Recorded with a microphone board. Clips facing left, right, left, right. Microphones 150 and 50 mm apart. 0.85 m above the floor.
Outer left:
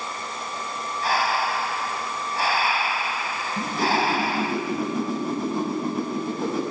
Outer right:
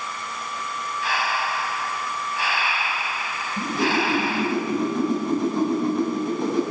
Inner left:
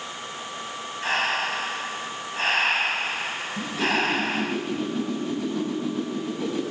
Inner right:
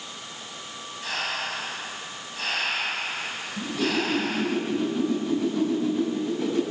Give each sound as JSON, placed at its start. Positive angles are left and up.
{"t": 1.0, "sound": "breathing", "side_deg": 40, "distance_m": 2.0}
{"t": 3.6, "sound": "a whoosh", "side_deg": 5, "distance_m": 7.0}